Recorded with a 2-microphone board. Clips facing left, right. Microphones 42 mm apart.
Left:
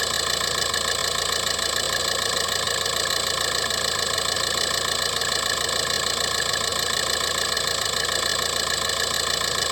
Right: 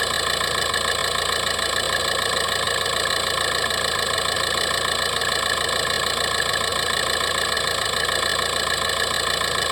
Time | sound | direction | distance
0.0 | an engine running | 15° right (ahead or behind) | ?